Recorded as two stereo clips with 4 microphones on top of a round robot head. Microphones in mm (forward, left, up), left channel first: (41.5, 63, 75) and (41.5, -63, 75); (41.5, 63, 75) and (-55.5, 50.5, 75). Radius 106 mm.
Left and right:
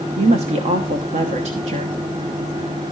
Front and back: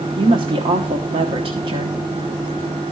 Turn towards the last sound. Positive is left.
turn(degrees=-130)